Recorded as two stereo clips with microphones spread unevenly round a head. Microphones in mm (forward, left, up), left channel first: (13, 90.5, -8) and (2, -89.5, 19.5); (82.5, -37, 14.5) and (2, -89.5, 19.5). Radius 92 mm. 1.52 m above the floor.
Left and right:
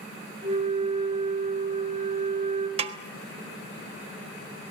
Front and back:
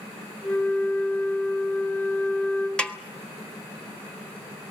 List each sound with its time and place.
0.4 s a flute: 35° right, 4 m
2.8 s a snare drum: 50° right, 1.4 m